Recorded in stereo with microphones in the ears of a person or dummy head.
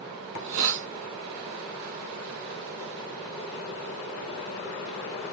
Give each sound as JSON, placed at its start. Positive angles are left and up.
{"t": 0.3, "sound": "a hiss", "side_deg": -65, "distance_m": 0.6}